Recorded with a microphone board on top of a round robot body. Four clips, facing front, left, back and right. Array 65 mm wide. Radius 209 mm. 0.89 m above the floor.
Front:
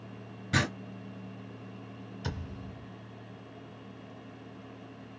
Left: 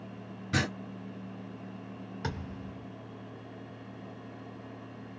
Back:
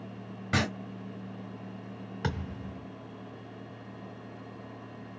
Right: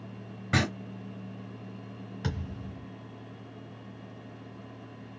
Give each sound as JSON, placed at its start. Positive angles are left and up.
{"t": 0.5, "sound": "writing", "azimuth_deg": -135, "distance_m": 0.8}
{"t": 2.2, "sound": "a thud", "azimuth_deg": 170, "distance_m": 1.9}